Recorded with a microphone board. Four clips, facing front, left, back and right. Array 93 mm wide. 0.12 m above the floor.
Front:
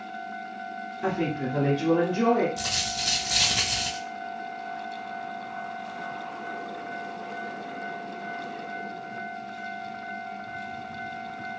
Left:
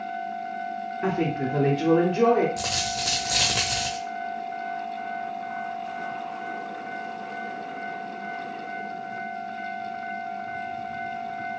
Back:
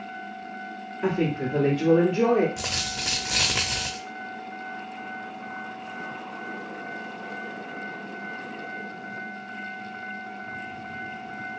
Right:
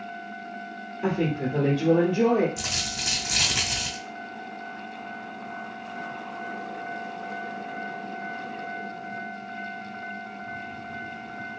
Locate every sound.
1.0 s a woman speaking: 115° left, 1.5 m
2.6 s a dropped coin: 140° left, 1.0 m